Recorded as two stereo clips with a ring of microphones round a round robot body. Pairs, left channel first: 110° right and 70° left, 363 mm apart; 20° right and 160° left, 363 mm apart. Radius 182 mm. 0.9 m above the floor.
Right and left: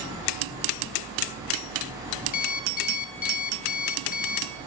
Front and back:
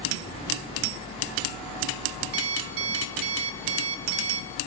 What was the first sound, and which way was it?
An alarm clock, straight behind.